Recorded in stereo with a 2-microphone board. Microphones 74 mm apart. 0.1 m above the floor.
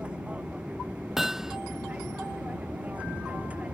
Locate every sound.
0.0 s an aircraft: 15° right (ahead or behind); by 3.7 s 20° right (ahead or behind)
1.2 s hammering: 5° right (ahead or behind)